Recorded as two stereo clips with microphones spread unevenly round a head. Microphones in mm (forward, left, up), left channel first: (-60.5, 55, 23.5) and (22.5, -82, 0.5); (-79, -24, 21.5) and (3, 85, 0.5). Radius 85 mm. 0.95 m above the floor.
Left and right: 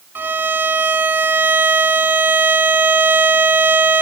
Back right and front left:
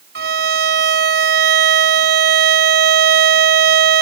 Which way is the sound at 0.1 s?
25° left.